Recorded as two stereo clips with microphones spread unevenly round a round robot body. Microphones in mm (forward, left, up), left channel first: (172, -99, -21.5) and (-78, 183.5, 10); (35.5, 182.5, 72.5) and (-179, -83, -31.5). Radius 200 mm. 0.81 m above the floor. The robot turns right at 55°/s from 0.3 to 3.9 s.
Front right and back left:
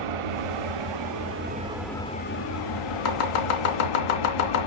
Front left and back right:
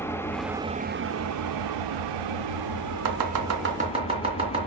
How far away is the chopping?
About 2.5 m.